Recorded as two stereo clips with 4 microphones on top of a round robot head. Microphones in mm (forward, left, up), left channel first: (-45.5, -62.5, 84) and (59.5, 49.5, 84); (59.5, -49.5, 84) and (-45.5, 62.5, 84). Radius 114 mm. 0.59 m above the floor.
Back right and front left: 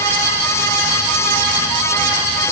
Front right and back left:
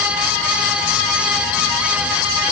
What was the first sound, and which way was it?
Only background noise.